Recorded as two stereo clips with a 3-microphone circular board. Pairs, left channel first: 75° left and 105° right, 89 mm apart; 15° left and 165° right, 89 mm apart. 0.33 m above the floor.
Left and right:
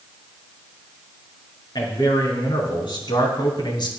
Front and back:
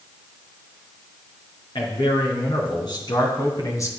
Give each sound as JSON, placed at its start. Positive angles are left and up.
{"t": 1.8, "sound": "a man speaking", "azimuth_deg": 40, "distance_m": 4.0}